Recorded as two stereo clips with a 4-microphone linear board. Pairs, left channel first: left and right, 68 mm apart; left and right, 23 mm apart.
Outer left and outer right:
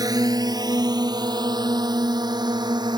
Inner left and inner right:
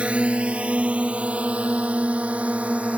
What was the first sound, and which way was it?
A drone, 65° right (ahead or behind).